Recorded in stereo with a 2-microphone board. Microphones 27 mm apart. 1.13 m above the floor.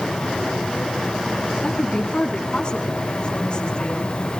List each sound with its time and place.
1.6 s a woman speaking: 35° left (ahead or behind), 7 m